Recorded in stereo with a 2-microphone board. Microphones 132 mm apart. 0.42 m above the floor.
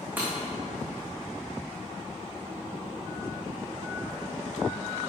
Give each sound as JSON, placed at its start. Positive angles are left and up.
{"t": 0.2, "sound": "breaking glass", "side_deg": -15, "distance_m": 3.5}